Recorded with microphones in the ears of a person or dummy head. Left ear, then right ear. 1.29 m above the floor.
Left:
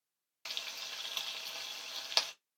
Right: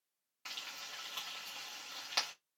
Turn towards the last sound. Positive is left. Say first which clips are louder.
# left 4 dB
turn(degrees=25)  # may be behind; listen again after turning